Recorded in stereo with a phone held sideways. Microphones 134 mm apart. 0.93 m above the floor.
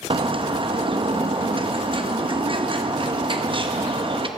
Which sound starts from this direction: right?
A bird, at 0.1 s.